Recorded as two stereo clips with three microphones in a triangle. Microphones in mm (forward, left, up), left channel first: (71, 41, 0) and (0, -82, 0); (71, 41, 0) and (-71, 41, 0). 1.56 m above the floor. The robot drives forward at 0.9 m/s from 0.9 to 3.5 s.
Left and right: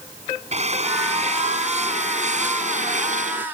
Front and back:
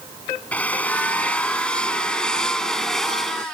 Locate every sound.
0.5 s a drill: 80° right; by 3.5 s 90° right